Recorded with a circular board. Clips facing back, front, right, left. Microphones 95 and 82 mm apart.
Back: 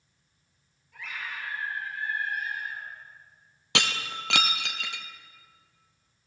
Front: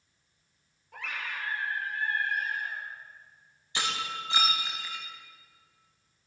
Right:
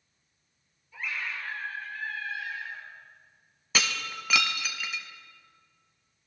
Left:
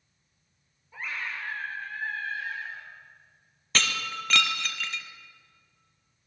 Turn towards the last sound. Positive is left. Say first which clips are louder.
# back 2 dB, left 1 dB
turn(degrees=-175)